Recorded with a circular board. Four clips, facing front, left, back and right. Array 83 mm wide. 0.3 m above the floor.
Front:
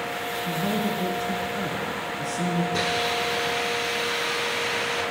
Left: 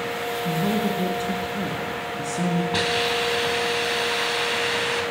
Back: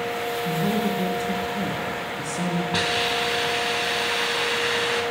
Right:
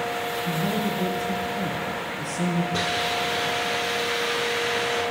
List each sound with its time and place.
0.5 s a woman speaking: 120° left, 3 m
2.7 s a hiss: 140° left, 2.5 m